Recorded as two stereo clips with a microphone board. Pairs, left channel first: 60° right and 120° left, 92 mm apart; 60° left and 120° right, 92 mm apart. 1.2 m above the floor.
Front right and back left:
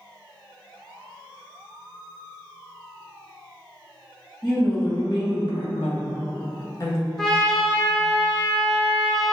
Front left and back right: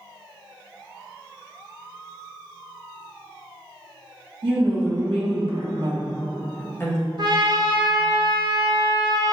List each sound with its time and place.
4.4 s a woman speaking: 115° right, 1.8 m; by 7.1 s 5° left, 0.8 m
7.2 s a trumpet: 145° right, 0.7 m